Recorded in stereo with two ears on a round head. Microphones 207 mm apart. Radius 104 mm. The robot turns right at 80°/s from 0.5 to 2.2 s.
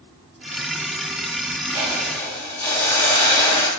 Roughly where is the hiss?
Ahead right.